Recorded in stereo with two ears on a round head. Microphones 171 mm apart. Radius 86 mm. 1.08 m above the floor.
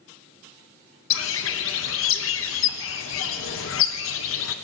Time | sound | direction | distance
1.1 | a bird | 80° left | 0.7 m